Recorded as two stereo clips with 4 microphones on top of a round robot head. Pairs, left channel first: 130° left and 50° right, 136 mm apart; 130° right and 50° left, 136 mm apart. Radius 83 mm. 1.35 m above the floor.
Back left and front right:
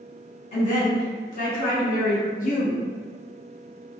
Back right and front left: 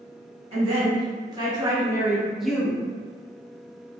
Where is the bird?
I don't hear a bird.